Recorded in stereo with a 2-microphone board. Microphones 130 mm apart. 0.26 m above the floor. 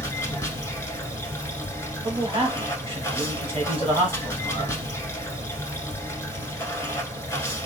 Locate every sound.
0.0 s running water: 20° left (ahead or behind), 1.1 m
2.0 s a man speaking: 45° right (ahead or behind), 1.5 m